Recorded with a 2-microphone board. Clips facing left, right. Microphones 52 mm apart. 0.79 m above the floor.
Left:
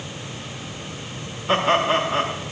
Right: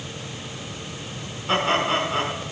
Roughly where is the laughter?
Centre.